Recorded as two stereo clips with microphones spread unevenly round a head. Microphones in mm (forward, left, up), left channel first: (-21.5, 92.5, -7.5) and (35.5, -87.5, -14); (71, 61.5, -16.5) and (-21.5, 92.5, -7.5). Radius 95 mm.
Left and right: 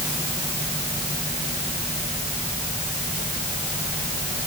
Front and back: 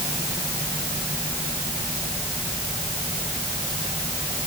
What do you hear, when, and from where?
Only background noise.